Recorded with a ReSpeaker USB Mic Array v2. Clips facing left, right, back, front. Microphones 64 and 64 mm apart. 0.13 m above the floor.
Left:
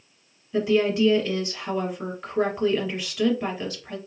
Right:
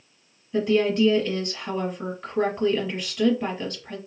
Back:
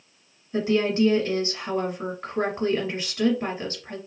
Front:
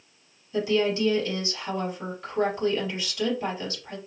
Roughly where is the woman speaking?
Behind.